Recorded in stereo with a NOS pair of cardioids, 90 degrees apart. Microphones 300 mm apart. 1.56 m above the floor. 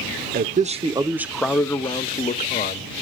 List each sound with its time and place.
0.3 s a man speaking: 35° right, 1.0 m; by 2.9 s 35° left, 1.4 m